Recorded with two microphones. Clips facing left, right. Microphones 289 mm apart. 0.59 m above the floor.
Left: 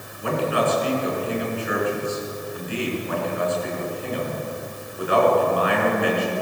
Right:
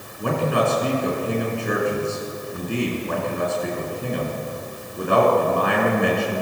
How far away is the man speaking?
About 6.5 m.